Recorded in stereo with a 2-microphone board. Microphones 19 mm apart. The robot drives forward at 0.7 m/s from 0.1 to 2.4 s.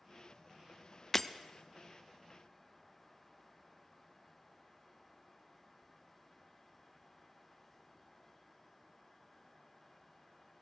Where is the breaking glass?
20° left (ahead or behind), 0.7 m.